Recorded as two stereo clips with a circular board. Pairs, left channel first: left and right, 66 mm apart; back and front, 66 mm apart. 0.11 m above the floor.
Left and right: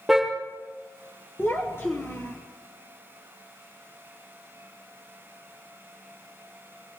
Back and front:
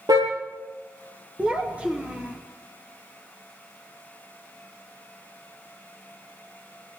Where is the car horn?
5° right, 6.5 m.